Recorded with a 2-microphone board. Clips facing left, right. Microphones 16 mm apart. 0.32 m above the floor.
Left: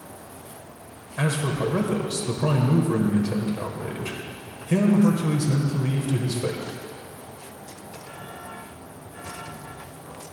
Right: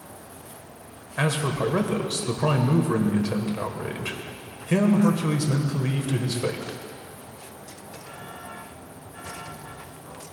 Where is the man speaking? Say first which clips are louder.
Right 1 dB; 20° right (ahead or behind), 1.0 m.